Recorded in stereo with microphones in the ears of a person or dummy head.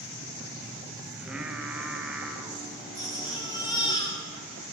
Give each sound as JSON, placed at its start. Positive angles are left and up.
{"t": 1.1, "sound": "singing", "side_deg": -5, "distance_m": 0.6}
{"t": 3.0, "sound": "a baby crying", "side_deg": 20, "distance_m": 0.7}